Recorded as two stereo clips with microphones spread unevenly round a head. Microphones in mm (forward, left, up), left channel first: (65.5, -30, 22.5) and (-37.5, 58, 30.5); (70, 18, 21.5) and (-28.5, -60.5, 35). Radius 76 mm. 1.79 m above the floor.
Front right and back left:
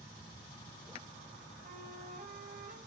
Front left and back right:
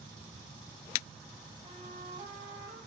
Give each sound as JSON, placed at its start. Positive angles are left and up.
{"t": 1.6, "sound": "a flute", "azimuth_deg": 170, "distance_m": 1.7}